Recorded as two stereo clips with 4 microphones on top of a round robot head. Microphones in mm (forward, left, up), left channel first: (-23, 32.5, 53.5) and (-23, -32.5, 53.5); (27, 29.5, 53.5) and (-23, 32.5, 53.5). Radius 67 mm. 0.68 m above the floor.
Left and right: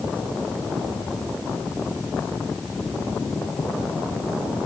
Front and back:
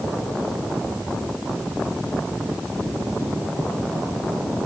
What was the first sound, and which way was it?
Only background noise.